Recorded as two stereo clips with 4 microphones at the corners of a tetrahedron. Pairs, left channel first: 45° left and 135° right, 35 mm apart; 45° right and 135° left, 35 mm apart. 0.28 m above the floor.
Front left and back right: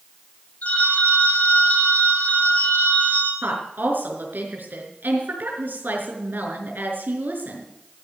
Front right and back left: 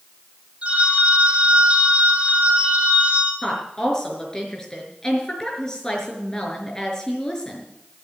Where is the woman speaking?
115° right, 5 m.